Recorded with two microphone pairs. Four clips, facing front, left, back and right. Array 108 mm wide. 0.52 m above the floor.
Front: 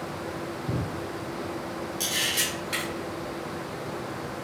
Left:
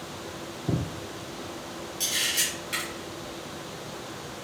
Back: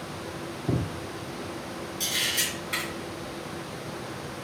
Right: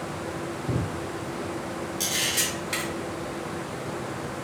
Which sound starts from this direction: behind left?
Footsteps, at 0.7 s.